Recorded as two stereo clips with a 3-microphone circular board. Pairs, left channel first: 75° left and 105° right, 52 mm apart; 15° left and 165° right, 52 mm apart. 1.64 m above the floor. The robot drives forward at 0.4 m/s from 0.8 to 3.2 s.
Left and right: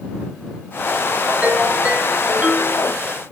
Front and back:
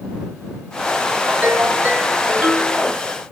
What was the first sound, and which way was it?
A ringtone, 150° right.